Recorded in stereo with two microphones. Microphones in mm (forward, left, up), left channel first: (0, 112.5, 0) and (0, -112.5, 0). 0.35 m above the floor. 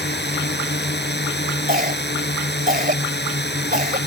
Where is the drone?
50° left (ahead or behind).